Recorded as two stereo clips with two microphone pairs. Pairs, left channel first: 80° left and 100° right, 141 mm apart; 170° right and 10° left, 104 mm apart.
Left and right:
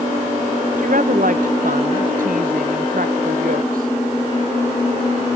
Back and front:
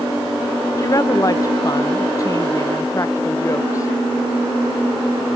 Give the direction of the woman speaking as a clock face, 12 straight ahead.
4 o'clock.